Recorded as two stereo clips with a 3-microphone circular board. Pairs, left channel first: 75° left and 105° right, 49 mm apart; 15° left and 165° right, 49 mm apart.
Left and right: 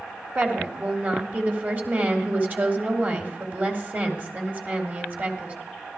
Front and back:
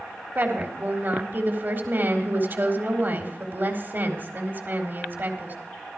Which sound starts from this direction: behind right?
A woman speaking, at 0.3 s.